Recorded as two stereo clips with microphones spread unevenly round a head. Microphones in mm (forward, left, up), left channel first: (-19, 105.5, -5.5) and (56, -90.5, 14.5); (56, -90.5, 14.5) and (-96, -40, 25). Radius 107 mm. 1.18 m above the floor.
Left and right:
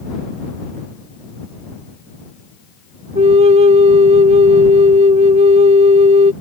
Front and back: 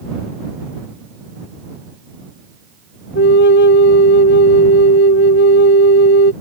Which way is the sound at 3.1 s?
5° right.